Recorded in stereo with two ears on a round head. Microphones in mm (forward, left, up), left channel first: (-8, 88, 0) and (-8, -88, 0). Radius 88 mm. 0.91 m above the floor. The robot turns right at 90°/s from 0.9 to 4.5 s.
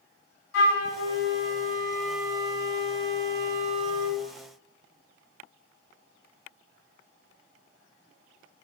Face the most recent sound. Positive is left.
turn(degrees=35)